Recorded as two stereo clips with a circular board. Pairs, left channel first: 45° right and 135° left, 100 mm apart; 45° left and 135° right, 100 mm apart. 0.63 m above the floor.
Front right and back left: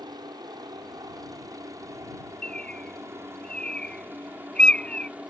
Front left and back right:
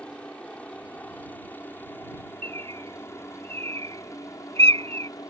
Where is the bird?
125° right.